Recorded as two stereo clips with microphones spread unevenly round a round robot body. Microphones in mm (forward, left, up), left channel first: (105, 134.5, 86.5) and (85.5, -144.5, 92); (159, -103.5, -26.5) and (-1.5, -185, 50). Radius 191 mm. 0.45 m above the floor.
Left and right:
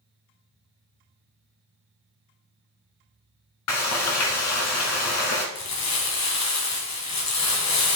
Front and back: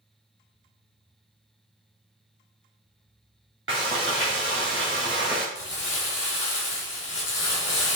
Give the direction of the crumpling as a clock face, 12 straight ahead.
10 o'clock.